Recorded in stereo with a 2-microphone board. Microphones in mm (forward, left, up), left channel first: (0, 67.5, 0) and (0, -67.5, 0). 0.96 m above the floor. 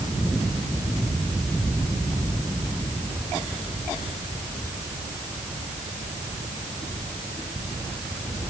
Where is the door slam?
I don't hear a door slam.